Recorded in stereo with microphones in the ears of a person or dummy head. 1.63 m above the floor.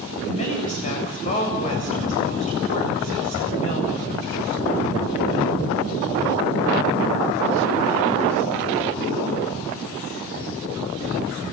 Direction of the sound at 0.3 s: 40° left (ahead or behind).